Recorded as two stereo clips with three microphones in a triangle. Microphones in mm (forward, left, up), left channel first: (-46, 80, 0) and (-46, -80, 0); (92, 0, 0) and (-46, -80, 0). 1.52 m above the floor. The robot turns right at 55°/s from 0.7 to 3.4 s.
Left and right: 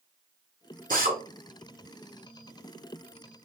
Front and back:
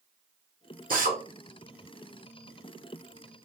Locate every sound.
0.9 s a drill: 120° right, 1.3 m; by 1.2 s 105° right, 1.3 m